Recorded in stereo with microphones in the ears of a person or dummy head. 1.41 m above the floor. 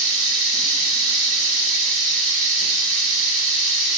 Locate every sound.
0.0 s running water: 50° right (ahead or behind), 4 m